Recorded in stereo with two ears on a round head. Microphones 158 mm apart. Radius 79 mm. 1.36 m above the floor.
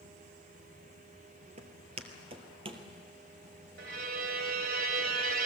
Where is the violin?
55° right (ahead or behind), 1.7 m.